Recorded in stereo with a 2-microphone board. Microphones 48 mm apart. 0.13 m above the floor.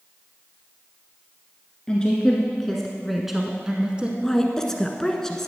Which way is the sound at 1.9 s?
20° left (ahead or behind).